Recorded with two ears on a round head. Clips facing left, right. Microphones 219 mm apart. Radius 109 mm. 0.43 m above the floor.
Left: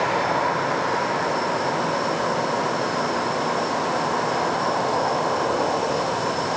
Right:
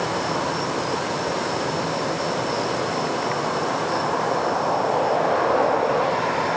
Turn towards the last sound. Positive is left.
No sound to turn to.